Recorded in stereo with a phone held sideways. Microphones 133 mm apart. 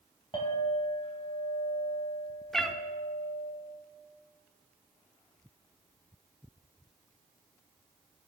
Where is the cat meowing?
Centre (ahead or behind), 0.6 m.